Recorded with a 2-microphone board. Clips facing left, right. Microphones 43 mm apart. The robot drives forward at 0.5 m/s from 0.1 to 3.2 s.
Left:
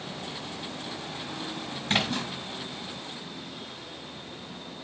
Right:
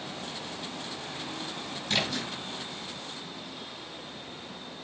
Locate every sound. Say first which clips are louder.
1.9 s a splash: left 3 dB; 35° left (ahead or behind), 5 m